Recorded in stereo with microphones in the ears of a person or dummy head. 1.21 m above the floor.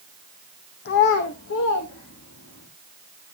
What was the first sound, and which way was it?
A child speaking, 55° left (ahead or behind).